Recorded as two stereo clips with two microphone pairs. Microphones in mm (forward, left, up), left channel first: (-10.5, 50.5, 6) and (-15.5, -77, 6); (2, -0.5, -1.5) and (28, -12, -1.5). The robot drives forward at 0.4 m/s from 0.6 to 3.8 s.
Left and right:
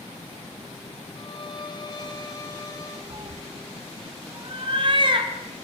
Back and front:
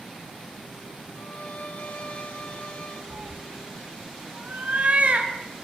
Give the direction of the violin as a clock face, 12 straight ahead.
8 o'clock.